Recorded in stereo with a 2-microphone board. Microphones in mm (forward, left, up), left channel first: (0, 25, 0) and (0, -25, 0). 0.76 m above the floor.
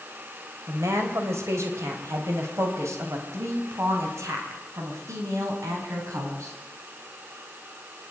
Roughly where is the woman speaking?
Right.